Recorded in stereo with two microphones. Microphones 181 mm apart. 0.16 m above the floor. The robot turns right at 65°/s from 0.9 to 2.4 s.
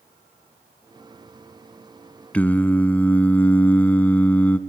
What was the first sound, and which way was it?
Singing, 5° left (ahead or behind).